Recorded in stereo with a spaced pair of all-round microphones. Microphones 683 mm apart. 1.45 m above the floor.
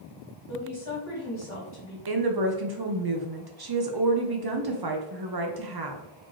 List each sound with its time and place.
0.5 s a woman speaking: 45° left (ahead or behind), 2 m
2.1 s a woman speaking: 40° right (ahead or behind), 0.5 m